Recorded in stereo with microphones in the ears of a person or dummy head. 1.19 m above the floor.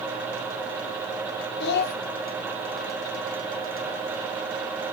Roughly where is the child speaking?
Left.